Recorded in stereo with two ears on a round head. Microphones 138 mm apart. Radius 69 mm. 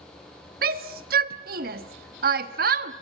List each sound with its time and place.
0.6 s a shout: 60° right (ahead or behind), 1.5 m